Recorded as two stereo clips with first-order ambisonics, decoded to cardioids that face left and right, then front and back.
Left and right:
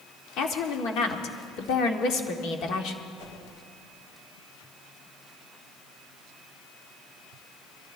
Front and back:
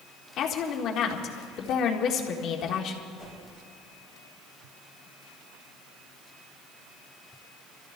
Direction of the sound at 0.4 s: 50° left.